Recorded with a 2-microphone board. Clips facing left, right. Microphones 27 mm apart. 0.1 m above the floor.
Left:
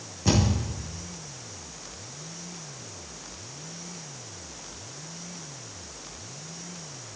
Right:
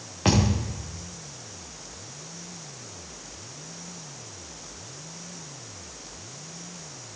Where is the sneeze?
No sneeze in this recording.